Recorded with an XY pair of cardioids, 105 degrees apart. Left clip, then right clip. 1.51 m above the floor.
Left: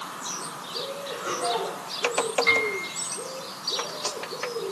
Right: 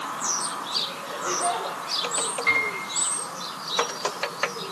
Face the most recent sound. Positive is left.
turn(degrees=-10)